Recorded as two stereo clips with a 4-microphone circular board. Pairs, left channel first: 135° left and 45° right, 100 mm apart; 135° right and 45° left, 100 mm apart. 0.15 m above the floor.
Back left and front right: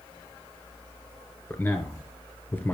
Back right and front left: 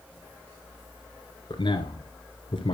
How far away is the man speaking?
About 1.7 m.